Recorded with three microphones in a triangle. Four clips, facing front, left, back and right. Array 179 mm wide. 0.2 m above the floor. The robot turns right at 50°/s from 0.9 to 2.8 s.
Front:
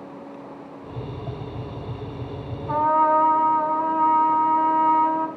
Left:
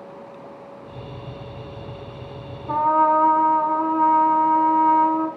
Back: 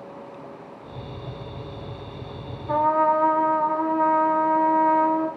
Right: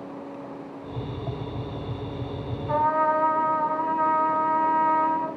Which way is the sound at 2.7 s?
50° left.